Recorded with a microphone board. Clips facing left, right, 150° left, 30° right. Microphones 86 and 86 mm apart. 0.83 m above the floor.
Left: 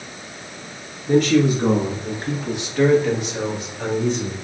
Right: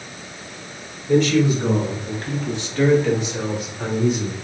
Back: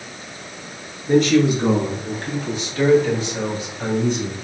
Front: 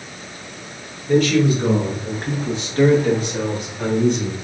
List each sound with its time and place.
1.1 s a man speaking: 100° left, 0.9 m; by 4.3 s 5° right, 2 m